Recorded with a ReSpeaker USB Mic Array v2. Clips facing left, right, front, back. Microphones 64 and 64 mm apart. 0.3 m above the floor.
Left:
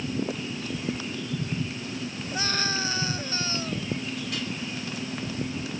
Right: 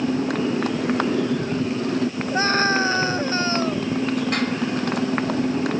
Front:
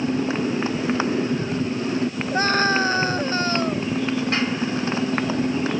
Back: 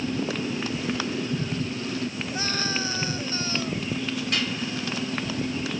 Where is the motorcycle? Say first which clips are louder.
Right 9 dB, front 5 dB; 60° right.